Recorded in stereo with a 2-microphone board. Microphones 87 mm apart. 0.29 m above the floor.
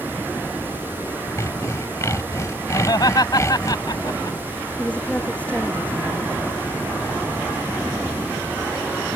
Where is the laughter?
50° left (ahead or behind).